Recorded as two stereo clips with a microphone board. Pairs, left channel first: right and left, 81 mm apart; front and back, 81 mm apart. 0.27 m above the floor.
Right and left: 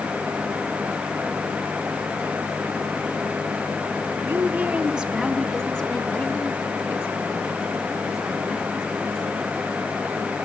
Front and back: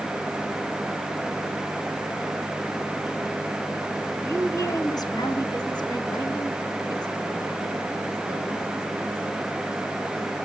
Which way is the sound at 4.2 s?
40° left.